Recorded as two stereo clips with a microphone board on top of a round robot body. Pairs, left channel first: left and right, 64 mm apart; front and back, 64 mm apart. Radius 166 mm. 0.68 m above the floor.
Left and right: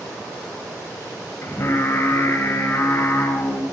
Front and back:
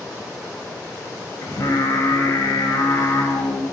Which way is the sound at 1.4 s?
35° left.